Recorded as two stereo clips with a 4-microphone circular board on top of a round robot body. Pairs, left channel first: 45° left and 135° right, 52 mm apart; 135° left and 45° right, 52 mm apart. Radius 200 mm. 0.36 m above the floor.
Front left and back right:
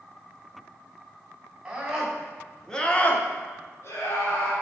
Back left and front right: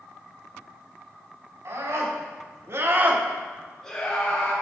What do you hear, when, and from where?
1.6 s a scream: 60° right, 3 m; by 4.5 s 80° left, 2.5 m